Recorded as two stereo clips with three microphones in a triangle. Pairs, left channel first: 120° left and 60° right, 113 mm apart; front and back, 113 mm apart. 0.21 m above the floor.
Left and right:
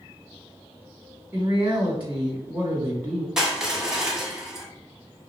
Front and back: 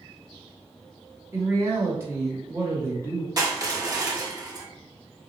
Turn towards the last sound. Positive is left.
turn(degrees=-145)